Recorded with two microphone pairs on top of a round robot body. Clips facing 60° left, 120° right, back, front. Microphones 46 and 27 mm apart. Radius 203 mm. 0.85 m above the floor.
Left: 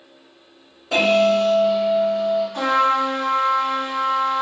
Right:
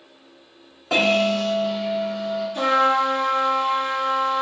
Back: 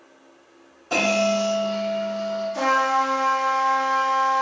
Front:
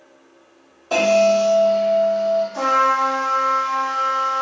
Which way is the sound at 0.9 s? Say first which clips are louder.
Left 3 dB, front 5 dB; 100° right.